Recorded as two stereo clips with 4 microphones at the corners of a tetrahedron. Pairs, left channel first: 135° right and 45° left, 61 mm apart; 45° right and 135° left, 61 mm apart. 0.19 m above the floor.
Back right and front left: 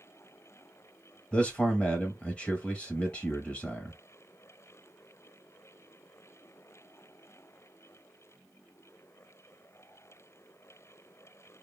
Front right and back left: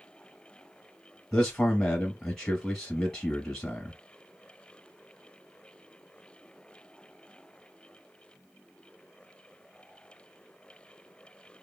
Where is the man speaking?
110° right, 1.0 m.